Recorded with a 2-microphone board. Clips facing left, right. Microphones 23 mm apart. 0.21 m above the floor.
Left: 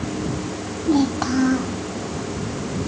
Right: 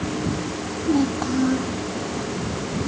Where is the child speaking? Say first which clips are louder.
Left 2 dB; 40° left (ahead or behind).